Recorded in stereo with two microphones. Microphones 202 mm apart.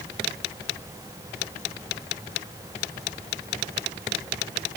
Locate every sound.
Only background noise.